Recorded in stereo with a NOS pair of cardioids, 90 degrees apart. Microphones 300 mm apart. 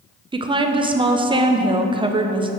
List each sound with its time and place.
0.3 s a woman speaking: 15° right, 0.9 m